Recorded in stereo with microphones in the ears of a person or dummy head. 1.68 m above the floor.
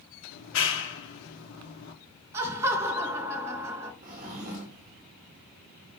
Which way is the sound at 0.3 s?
85° left.